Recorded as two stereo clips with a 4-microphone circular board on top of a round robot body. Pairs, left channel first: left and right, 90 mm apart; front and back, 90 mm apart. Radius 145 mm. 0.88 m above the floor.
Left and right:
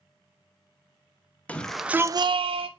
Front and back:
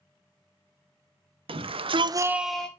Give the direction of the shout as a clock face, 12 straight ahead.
6 o'clock.